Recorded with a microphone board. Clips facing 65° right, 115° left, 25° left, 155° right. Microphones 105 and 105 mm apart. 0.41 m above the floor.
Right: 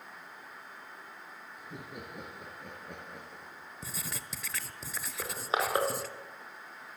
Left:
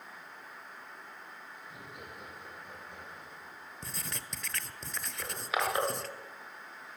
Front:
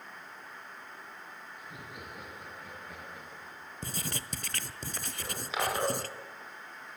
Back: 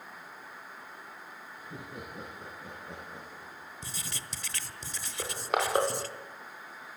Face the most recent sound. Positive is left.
turn(degrees=-125)